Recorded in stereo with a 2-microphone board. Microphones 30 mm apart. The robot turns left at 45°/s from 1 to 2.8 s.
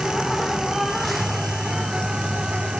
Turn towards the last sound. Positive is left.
turn(degrees=-80)